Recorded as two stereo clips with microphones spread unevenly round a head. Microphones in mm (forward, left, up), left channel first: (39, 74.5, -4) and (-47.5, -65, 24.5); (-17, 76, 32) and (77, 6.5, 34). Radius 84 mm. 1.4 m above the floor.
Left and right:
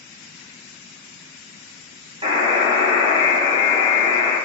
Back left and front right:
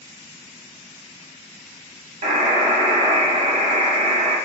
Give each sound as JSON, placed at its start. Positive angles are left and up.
{"t": 2.2, "sound": "a buzzer", "azimuth_deg": -55, "distance_m": 0.7}